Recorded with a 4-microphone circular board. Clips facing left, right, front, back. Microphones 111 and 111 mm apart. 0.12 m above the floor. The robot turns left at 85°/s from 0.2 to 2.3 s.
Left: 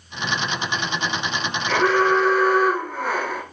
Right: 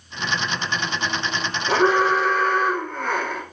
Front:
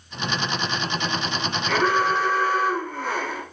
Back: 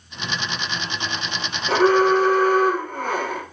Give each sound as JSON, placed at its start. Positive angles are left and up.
{"t": 1.7, "sound": "an alarm", "azimuth_deg": -135, "distance_m": 2.5}